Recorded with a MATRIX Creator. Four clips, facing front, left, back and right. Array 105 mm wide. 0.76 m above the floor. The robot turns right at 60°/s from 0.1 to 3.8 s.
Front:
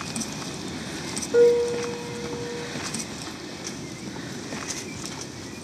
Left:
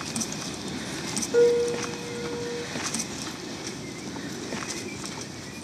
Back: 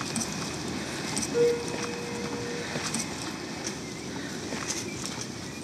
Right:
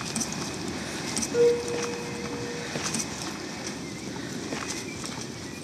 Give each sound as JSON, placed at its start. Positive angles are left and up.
{"t": 1.3, "sound": "a piano", "azimuth_deg": 30, "distance_m": 0.6}